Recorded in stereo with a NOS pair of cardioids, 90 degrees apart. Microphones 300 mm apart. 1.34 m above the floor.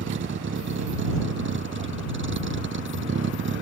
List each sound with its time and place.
0.0 s a vehicle: 40° right